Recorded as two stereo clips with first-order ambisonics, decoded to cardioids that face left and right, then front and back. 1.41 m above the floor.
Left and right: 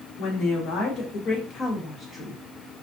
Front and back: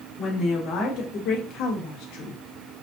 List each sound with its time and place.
0.2 s a woman speaking: 60° left, 1.4 m; by 2.4 s 5° left, 0.8 m